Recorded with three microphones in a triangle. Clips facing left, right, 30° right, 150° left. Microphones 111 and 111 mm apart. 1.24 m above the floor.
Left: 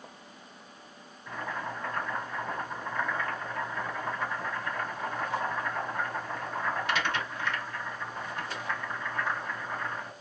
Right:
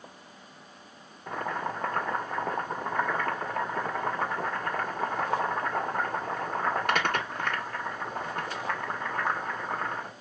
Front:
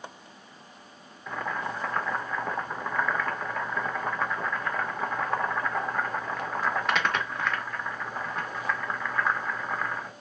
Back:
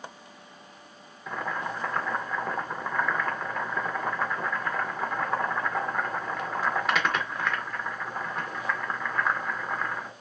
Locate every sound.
1.3 s boiling: 120° right, 0.8 m